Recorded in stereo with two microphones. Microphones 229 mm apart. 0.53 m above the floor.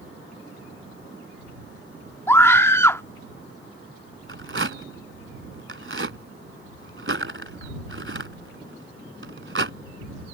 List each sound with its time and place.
2.3 s a scream: 10° left (ahead or behind)
4.3 s a rattle: 55° right (ahead or behind)